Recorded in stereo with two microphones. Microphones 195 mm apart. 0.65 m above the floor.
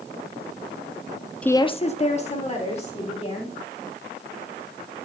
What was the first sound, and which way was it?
A woman speaking, 5° left (ahead or behind).